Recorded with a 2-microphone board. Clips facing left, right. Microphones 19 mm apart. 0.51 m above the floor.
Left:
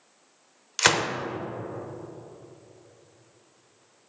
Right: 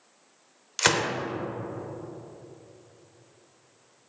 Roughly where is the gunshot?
Centre.